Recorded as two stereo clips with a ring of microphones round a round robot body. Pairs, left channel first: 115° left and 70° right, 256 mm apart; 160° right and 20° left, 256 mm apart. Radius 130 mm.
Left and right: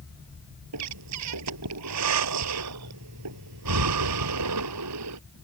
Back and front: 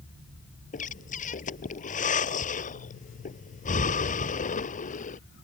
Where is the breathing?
95° right.